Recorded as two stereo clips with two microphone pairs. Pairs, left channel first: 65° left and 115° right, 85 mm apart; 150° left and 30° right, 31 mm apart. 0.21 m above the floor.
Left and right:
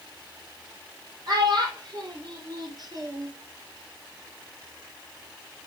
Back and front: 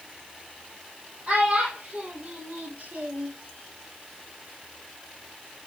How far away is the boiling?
I don't hear boiling.